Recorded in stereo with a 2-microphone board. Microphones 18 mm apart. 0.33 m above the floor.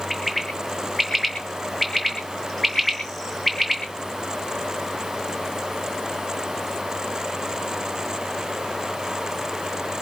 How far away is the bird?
About 3.5 m.